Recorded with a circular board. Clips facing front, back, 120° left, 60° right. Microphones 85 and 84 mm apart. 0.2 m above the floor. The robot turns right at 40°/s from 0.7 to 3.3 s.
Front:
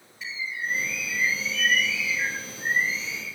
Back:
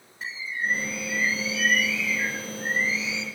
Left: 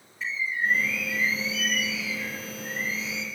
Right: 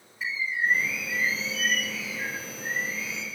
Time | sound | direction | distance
0.2 | a bird | 140° right | 2.5 m